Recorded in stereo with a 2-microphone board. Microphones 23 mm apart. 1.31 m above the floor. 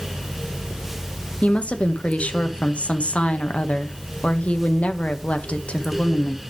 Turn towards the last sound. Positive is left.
turn(degrees=60)  # may be behind; listen again after turning